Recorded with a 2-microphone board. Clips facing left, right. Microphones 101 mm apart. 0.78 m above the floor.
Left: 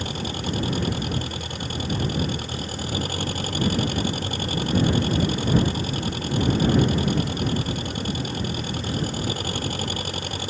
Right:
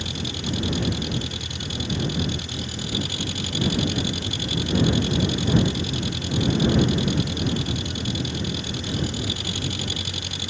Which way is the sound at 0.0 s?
40° left (ahead or behind).